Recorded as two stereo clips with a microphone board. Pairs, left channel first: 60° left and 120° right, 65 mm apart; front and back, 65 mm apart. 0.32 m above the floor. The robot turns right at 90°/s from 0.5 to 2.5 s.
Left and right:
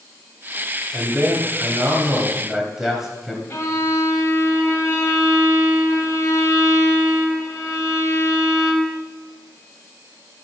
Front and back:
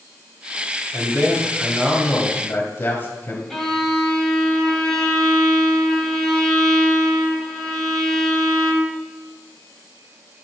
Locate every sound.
0.9 s a man speaking: straight behind, 2.0 m; by 3.4 s 40° right, 2.0 m
3.5 s a violin: 85° left, 1.7 m